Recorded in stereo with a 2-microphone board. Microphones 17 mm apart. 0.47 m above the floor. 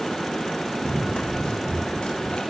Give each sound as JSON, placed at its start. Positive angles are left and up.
{"t": 0.8, "sound": "running footsteps", "side_deg": 75, "distance_m": 6.5}